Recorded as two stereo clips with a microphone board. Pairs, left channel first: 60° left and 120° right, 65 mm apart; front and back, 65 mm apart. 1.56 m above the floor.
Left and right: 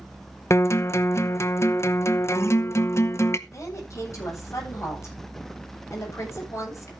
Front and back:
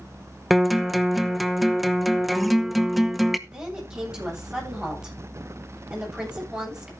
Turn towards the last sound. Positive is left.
turn(degrees=105)